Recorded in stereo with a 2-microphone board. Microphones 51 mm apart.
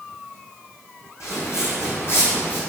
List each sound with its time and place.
1.2 s footsteps: 65° left (ahead or behind), 1.7 m; by 2.6 s 40° left (ahead or behind), 1.7 m